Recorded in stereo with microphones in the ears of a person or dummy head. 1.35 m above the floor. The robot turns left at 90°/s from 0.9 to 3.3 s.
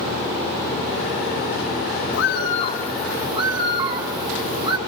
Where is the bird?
80° left, 1.1 m; by 4.8 s 25° right, 1.1 m.